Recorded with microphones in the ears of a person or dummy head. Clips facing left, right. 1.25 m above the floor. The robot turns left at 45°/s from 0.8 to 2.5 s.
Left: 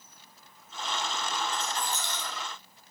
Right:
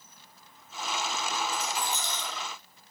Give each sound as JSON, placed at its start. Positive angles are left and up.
{"t": 1.5, "sound": "a rattle", "side_deg": -10, "distance_m": 1.5}